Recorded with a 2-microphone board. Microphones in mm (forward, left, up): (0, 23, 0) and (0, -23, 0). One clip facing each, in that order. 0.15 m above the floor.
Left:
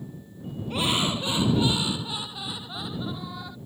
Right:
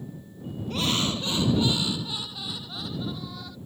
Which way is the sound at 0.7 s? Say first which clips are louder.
Left 1 dB; 15° left (ahead or behind).